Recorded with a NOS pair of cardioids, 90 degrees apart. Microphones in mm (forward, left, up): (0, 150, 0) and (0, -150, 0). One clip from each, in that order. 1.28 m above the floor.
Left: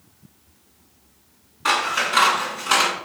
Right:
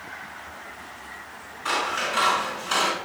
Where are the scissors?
70° left, 6 m.